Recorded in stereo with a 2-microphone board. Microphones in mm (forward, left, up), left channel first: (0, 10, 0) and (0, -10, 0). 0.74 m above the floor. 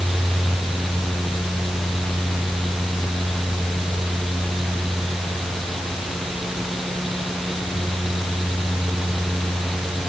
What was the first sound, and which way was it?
Only background noise.